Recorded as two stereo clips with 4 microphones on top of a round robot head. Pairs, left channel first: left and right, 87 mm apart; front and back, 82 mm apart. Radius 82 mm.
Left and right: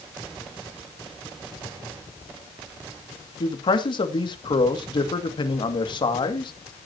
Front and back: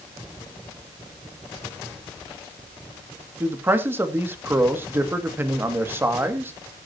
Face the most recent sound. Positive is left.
turn(degrees=115)